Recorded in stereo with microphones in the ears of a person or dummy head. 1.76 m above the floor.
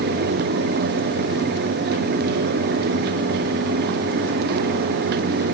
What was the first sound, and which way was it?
Only background noise.